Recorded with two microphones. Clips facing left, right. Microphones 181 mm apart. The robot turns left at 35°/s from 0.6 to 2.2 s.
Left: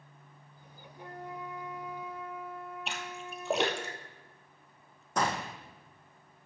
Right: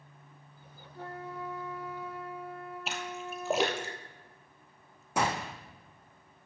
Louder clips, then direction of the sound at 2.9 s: Right 3 dB; centre (ahead or behind).